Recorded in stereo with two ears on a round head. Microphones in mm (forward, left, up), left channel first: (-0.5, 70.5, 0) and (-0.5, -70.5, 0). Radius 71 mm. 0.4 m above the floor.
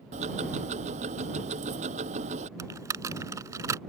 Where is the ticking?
45° right (ahead or behind).